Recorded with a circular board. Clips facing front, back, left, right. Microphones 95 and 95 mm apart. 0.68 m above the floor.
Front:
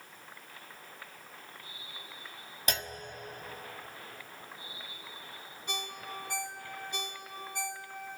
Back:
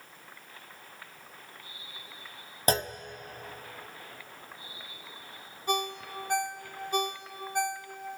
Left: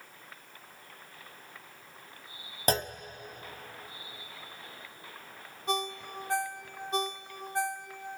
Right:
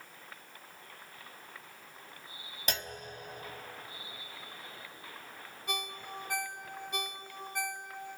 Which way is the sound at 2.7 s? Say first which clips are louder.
Back 9 dB, left 9 dB; 135° left.